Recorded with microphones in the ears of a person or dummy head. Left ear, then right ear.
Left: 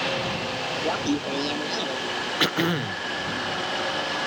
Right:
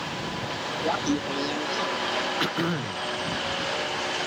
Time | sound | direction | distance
0.8 | laughter | 10° right (ahead or behind) | ?
2.4 | throat clearing | 25° left (ahead or behind) | ?